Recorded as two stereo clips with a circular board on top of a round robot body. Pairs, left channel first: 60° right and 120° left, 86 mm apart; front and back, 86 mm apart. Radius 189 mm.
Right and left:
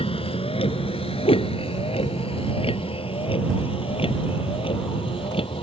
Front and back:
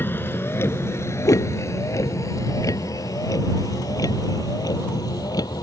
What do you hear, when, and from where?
0.0 s a vehicle: 70° right; by 5.6 s 45° right
1.2 s a whoosh: 50° right